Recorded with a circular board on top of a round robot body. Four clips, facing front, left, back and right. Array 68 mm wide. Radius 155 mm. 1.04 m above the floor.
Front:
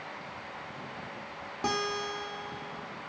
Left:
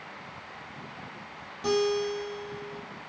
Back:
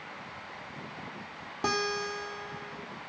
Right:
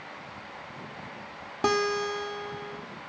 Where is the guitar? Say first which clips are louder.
Even, back 1 dB; 100° right, 1.0 m.